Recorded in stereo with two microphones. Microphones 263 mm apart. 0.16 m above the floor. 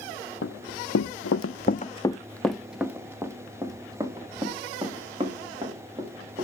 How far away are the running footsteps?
About 1.0 m.